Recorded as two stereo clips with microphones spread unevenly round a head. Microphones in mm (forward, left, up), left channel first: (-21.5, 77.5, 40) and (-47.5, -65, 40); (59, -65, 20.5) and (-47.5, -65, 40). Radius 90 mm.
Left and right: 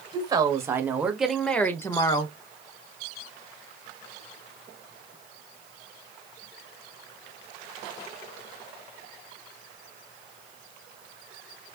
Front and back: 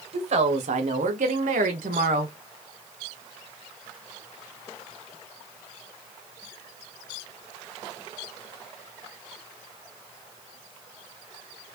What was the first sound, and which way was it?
A woman speaking, 160° right.